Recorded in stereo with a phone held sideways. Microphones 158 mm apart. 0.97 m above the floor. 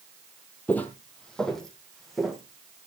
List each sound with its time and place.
0.7 s footsteps: 10° left (ahead or behind), 1.5 m; by 2.4 s centre (ahead or behind), 3 m